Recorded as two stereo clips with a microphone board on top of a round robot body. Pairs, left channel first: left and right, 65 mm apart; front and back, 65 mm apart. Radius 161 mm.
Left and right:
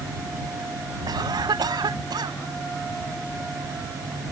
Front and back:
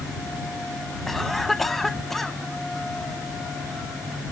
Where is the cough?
85° right.